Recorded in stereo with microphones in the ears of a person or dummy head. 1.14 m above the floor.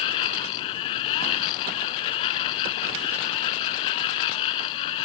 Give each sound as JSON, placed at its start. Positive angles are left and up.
{"t": 0.0, "sound": "a machine running", "side_deg": 45}